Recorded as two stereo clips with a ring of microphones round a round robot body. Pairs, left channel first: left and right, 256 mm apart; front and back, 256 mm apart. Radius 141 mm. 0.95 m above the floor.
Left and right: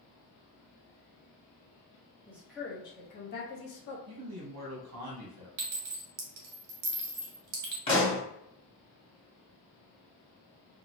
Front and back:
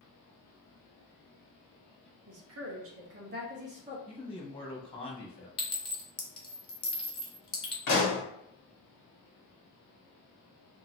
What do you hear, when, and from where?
2.3 s a woman speaking: 170° right, 0.9 m; by 4.0 s 110° left, 1.0 m
4.1 s a man speaking: 70° right, 1.4 m
5.6 s a clink: 75° right, 1.1 m
7.9 s a pop: 20° left, 1.5 m